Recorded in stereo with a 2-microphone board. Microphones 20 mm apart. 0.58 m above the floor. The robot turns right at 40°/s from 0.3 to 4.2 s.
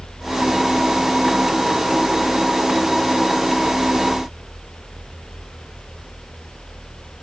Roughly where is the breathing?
No breathing in this recording.